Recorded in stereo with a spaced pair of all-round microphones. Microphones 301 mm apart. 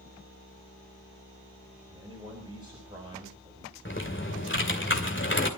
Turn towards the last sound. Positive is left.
turn(degrees=40)  # may be behind; listen again after turning